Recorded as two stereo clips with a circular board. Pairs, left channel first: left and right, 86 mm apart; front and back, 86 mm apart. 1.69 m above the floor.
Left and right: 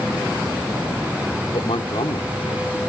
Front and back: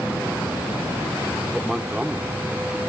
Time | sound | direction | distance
1.5 | a man speaking | 95° left | ?